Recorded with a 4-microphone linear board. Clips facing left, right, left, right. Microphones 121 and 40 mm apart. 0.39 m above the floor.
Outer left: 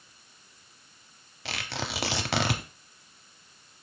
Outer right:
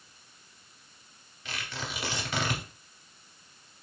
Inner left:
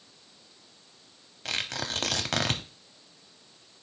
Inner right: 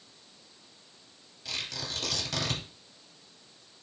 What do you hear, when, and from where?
1.4 s tearing paper: 75° left (ahead or behind), 0.6 m